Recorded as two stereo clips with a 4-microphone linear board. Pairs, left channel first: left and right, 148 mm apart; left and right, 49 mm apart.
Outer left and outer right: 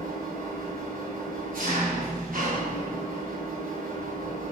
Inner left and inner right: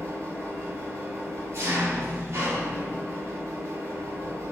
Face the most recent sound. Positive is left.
turn(degrees=-70)  # may be behind; listen again after turning